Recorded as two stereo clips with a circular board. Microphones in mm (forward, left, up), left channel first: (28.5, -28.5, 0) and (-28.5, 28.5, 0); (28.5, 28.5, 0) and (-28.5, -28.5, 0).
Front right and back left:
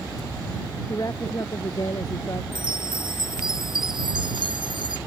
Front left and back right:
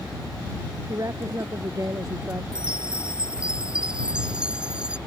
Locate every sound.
0.9 s a woman speaking: 90° right; by 2.4 s 80° right
2.5 s a chime: 145° left